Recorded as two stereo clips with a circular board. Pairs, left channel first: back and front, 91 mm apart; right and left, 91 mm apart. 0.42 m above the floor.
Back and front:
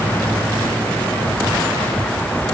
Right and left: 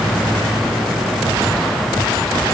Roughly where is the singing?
I don't hear singing.